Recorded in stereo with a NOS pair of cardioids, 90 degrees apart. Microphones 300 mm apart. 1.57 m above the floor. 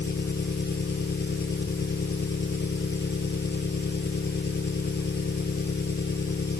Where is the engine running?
35° left.